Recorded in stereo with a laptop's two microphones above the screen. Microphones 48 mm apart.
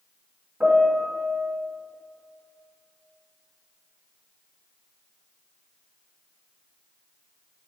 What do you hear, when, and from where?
0.6 s a piano: 25° right (ahead or behind), 1.9 m